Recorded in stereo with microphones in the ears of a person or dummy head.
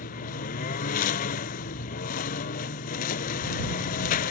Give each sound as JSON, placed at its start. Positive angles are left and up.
{"t": 0.0, "sound": "a lawn mower", "side_deg": 45}